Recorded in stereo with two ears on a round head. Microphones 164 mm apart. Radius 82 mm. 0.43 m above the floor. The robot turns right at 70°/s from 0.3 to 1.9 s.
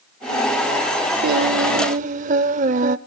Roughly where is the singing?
Right.